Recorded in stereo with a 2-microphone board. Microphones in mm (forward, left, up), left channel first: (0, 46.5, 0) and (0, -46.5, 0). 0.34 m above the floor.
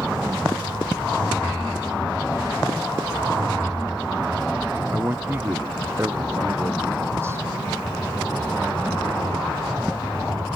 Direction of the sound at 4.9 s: 20° right (ahead or behind).